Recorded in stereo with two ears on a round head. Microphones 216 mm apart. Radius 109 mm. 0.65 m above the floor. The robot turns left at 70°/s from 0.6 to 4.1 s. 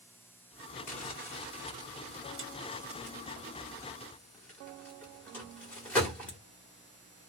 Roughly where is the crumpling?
Left.